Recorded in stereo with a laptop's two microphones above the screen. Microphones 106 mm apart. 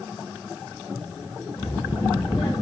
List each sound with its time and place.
1.6 s a child speaking: 45° left (ahead or behind), 1.9 m